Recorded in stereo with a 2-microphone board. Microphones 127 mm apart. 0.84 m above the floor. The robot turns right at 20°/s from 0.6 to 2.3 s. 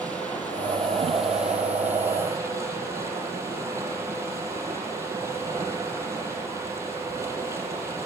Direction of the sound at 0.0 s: 170° left.